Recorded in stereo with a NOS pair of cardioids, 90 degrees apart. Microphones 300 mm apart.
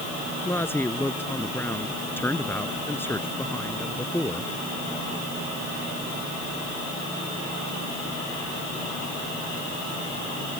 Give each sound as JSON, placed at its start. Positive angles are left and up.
{"t": 0.5, "sound": "a woman speaking", "azimuth_deg": 5}